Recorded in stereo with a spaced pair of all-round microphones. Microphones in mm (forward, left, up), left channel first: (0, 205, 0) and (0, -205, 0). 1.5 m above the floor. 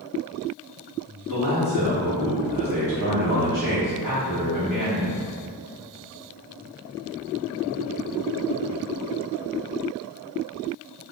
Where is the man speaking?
50° right (ahead or behind), 1.4 m.